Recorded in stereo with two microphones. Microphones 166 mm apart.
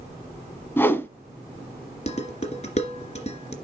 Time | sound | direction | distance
0.8 | a whoosh | 15° left (ahead or behind) | 1.1 m
2.1 | dishes clattering | 40° left (ahead or behind) | 2 m